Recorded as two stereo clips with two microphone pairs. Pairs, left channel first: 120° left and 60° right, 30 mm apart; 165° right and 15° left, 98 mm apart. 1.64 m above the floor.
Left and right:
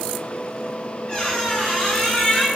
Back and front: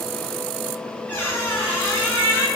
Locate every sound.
1.1 s a squeak: 150° left, 0.7 m